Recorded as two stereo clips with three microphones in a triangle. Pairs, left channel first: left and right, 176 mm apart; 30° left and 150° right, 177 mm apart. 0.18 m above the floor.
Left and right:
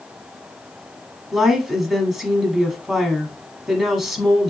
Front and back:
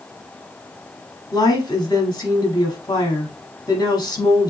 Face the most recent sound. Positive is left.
turn(degrees=-5)